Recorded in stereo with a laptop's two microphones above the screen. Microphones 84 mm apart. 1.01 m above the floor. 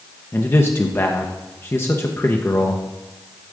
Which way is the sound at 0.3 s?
30° left (ahead or behind).